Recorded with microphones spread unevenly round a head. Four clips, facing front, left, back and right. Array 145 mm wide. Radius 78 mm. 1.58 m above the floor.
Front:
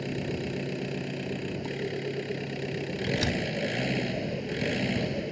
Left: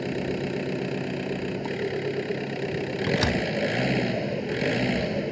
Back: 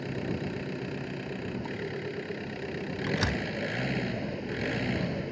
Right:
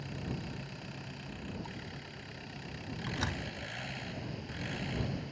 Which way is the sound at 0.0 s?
75° left.